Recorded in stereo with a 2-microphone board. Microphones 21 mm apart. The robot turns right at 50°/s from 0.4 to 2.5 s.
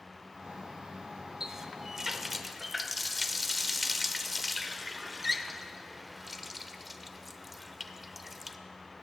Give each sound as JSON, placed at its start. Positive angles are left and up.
{"t": 1.4, "sound": "a running tap", "side_deg": -25, "distance_m": 0.5}